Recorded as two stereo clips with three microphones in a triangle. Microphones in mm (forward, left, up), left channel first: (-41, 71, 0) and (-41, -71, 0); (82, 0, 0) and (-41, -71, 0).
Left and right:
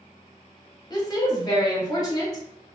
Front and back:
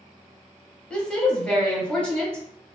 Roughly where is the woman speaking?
Left.